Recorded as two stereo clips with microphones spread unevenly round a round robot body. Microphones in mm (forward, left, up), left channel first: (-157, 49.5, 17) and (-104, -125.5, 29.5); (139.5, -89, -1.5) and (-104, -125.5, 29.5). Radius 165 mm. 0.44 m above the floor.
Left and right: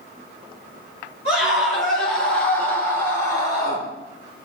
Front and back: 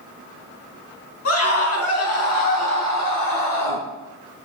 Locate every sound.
1.2 s a scream: 15° right, 5 m; by 3.9 s 25° left, 5.5 m